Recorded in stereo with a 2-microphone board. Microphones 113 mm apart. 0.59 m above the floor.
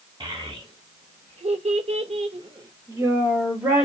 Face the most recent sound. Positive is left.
turn(degrees=-10)  # may be behind; listen again after turning